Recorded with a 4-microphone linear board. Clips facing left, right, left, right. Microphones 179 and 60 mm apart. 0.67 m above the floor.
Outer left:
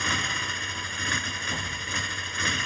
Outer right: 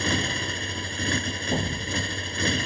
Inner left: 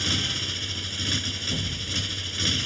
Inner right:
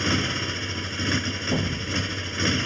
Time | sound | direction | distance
0.0 | a motorcycle | 35° right (ahead or behind) | ?
1.5 | an explosion | 50° right (ahead or behind) | ?